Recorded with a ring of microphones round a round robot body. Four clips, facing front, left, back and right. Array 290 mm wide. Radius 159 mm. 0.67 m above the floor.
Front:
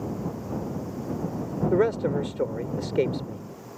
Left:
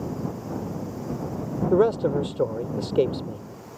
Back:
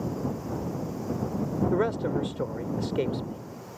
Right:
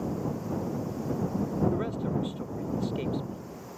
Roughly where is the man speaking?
Ahead left.